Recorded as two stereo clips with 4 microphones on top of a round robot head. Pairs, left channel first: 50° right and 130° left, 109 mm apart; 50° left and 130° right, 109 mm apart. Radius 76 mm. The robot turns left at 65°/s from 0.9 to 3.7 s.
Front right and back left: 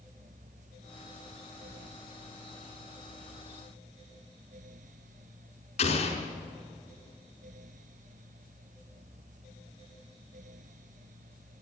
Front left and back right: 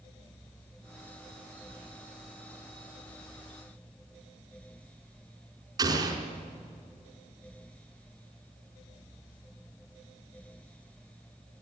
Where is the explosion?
80° right, 5 m.